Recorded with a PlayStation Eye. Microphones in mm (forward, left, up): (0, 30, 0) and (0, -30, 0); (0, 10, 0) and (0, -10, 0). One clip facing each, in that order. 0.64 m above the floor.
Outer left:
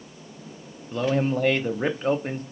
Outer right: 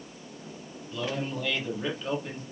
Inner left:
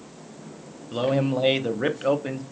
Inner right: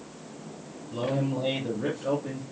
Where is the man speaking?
45° left (ahead or behind), 0.7 m.